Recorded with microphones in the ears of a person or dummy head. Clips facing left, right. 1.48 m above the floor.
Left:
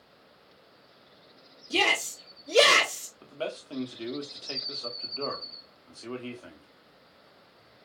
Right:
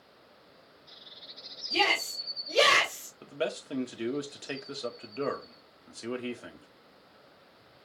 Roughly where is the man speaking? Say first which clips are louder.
Right 2 dB; centre.